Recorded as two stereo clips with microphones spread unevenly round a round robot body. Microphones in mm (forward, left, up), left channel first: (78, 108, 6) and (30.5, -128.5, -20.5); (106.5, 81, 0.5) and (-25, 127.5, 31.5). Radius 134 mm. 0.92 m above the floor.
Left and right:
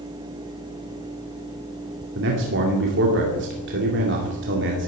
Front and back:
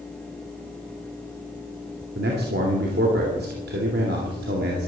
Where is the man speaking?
150° right, 2 m.